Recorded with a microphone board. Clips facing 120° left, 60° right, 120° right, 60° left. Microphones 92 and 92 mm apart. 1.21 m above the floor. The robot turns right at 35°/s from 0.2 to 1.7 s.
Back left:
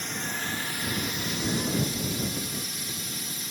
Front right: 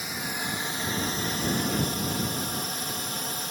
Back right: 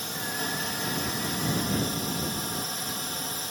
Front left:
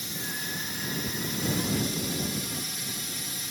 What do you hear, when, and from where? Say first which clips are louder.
0.0 s a drone: even, back right 4 dB; 140° right; by 3.5 s 90° right